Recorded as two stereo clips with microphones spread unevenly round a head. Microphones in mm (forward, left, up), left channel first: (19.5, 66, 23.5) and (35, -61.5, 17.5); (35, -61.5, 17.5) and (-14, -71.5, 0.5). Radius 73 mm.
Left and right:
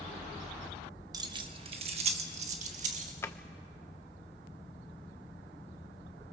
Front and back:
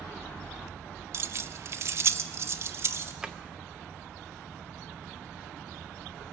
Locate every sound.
1.1 s keys jangling: 140° right, 0.9 m; by 3.1 s 125° right, 1.9 m
3.2 s a drawer: 75° left, 0.7 m